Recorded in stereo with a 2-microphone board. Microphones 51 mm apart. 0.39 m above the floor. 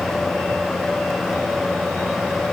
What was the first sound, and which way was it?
Only background noise.